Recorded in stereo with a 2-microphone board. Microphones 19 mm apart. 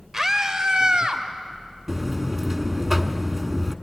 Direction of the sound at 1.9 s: 20° right (ahead or behind).